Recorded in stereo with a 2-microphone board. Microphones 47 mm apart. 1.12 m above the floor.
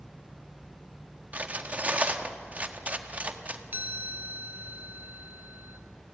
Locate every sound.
1.3 s cutlery clinking: 30° right (ahead or behind), 1.3 m
3.7 s a chime: 40° right (ahead or behind), 1.4 m